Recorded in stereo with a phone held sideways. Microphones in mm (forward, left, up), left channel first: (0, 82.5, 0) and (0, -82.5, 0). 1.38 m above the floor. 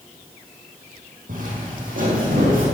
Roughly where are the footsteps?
Right.